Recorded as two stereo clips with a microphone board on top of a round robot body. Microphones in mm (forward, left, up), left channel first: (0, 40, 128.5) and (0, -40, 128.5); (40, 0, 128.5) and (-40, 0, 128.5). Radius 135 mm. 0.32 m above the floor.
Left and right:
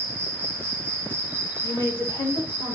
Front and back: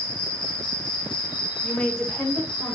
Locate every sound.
0.0 s an insect: 25° right, 0.9 m
1.6 s a woman speaking: 75° left, 2 m